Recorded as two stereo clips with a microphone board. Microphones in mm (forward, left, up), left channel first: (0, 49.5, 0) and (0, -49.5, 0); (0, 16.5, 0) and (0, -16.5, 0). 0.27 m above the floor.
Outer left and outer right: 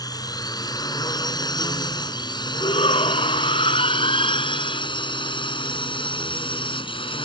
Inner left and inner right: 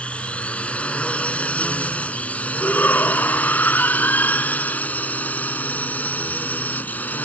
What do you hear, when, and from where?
0.0 s a drone: 40° left (ahead or behind); by 7.3 s 60° left (ahead or behind)
2.6 s a shout: 70° left (ahead or behind)